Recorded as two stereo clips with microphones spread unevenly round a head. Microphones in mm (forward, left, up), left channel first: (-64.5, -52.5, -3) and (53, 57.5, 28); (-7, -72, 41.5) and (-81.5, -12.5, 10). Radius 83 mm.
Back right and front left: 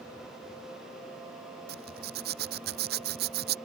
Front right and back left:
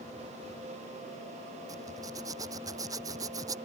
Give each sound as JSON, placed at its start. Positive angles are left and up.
{"t": 1.7, "sound": "a zipper", "azimuth_deg": 70}